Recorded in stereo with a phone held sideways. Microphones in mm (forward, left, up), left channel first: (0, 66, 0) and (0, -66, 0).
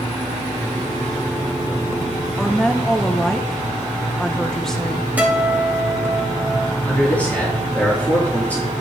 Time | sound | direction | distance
2.4 | a woman speaking | 5° left (ahead or behind) | 0.9 m
5.2 | a guitar | 15° right (ahead or behind) | 2.5 m
6.8 | a man speaking | 15° left (ahead or behind) | 2.5 m